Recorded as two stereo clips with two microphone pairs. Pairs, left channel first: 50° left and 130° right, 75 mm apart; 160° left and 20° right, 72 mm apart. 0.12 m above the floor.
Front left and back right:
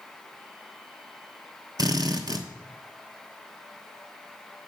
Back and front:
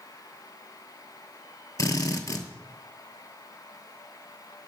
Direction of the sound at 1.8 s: 160° right.